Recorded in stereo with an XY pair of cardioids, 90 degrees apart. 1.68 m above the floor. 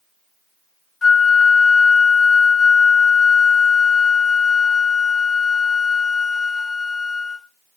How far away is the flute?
About 1.1 m.